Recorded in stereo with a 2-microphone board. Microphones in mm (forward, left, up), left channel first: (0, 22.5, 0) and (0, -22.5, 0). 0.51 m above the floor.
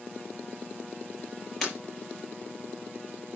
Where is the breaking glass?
5° left (ahead or behind), 4.5 m.